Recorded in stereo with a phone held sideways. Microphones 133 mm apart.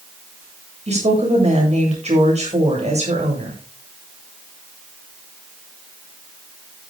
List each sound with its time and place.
0.9 s a woman speaking: 55° right (ahead or behind), 7.5 m